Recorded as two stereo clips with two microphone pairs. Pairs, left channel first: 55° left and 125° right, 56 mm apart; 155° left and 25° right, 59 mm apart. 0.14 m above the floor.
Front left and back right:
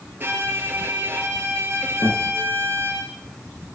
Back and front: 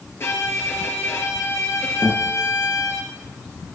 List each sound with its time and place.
0.2 s a violin: 170° right, 3 m
2.0 s a guitar: 75° left, 7 m